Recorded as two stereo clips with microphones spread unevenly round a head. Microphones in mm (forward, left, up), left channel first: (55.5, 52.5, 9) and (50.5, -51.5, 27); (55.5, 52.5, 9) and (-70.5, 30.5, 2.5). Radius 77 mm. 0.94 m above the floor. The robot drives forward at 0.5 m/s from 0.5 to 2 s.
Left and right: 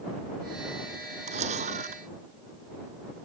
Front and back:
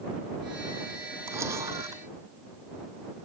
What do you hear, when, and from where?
1.3 s a camera shutter: 95° right; by 2.0 s 100° right